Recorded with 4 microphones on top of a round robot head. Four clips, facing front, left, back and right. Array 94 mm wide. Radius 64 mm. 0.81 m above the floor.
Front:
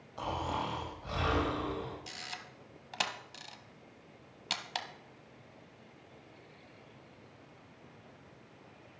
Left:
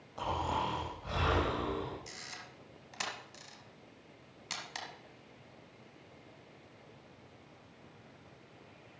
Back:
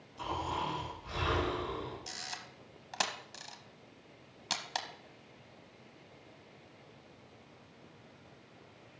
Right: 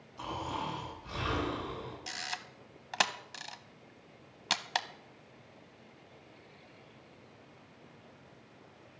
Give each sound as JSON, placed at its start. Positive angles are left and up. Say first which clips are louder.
{"t": 0.2, "sound": "snoring", "louder": "left 3 dB, front 1 dB", "azimuth_deg": 45, "distance_m": 6.5}
{"t": 2.1, "sound": "a camera shutter", "louder": "right 7 dB, even", "azimuth_deg": -95, "distance_m": 1.0}